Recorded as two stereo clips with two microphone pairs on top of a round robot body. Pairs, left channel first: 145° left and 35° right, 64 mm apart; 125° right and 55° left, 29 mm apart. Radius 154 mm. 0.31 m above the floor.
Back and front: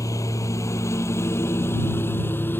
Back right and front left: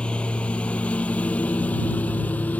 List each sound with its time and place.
0.0 s a lawn mower: 175° right; by 2.6 s 155° right